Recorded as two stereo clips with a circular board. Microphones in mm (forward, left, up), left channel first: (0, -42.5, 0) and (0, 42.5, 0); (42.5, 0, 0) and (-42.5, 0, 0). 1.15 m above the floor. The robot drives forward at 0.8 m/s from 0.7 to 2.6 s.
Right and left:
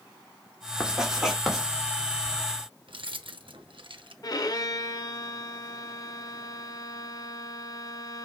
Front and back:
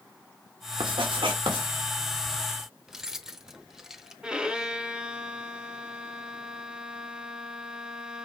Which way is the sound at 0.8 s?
170° left.